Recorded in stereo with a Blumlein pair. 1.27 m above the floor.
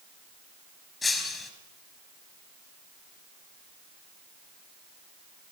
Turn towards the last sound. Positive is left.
turn(degrees=15)